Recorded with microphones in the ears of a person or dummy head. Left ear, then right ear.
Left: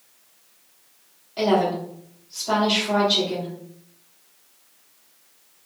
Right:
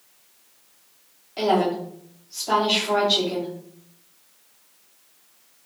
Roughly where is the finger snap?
I don't hear a finger snap.